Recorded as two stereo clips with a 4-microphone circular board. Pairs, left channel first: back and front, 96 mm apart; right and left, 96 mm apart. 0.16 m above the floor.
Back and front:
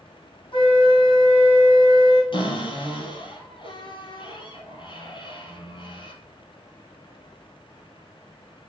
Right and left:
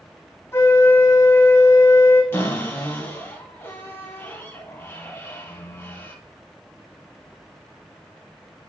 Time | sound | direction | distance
0.5 | a flute | 155° right | 3 m
2.3 | a cupboard door | 155° right | 3 m